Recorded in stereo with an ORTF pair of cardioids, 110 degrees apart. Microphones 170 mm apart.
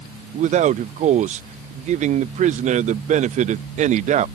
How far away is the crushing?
No crushing in this recording.